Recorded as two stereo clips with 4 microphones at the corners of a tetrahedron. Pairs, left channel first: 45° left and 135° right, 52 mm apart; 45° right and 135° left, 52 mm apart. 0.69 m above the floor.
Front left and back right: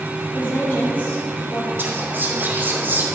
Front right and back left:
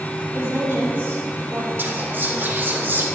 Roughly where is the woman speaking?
Left.